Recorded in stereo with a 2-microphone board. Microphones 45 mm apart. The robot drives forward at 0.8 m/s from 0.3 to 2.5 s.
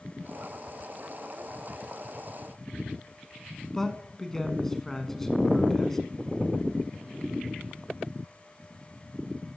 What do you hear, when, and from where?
3.7 s a man speaking: 10° left (ahead or behind), 1.1 m